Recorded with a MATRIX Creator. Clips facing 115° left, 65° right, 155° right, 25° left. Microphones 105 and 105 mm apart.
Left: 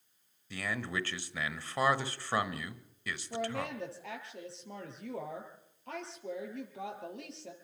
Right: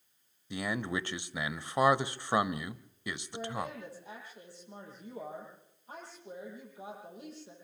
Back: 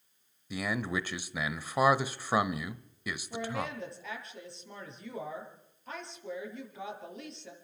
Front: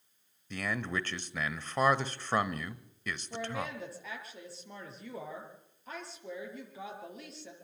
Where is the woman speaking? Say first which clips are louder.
Left 3 dB, back 2 dB; 110° left, 8 m.